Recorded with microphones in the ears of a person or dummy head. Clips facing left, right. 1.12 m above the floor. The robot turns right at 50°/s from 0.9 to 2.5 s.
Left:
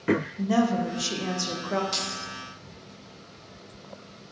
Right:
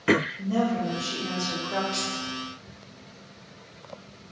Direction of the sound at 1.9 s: 65° left (ahead or behind).